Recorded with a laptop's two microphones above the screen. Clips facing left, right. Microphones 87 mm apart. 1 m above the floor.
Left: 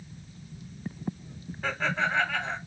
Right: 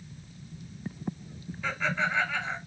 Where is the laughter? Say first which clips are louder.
Left 1 dB; 55° left (ahead or behind), 3 m.